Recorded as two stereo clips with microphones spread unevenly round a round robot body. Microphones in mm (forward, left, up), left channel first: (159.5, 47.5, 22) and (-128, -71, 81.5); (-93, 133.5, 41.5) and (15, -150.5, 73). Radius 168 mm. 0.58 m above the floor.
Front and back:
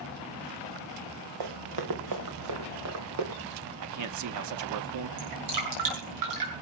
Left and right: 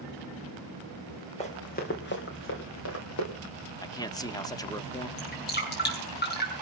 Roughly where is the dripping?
Behind.